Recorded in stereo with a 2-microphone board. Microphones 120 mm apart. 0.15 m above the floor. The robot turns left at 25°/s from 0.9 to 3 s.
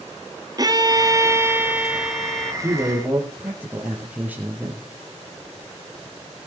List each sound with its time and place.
0.6 s a violin: 145° right, 0.9 m; by 2.5 s 175° left, 0.9 m
2.6 s a man speaking: 20° right (ahead or behind), 3.5 m; by 4.8 s 15° right (ahead or behind), 3.5 m